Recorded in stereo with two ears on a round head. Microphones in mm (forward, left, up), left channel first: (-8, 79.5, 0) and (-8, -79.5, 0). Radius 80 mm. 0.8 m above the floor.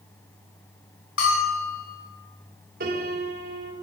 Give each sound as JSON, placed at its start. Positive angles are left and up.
{"t": 1.2, "sound": "a bell", "side_deg": 80, "distance_m": 5.5}
{"t": 2.8, "sound": "a piano", "side_deg": -55, "distance_m": 3.0}